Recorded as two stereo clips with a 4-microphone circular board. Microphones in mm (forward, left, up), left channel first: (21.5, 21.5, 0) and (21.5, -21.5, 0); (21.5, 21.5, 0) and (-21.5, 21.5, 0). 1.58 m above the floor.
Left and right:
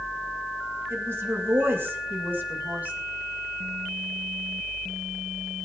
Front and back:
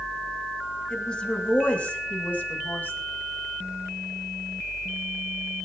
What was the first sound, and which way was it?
A woman speaking, 65° right.